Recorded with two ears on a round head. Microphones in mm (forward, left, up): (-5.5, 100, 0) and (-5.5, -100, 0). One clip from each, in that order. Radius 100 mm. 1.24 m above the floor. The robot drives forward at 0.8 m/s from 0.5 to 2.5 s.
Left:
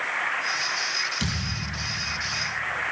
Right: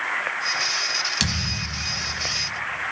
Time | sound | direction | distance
1.2 | a thud | 55° right (ahead or behind) | 1.8 m